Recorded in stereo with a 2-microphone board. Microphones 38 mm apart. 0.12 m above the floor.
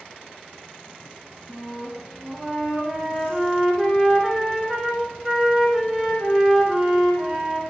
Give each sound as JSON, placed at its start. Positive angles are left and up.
{"t": 1.5, "sound": "a flute", "side_deg": -5, "distance_m": 0.9}